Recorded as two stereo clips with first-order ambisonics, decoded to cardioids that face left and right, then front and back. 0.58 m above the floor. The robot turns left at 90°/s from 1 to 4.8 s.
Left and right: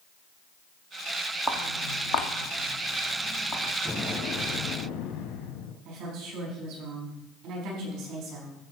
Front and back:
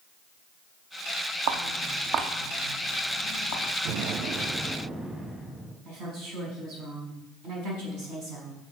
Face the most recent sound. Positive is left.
turn(degrees=-125)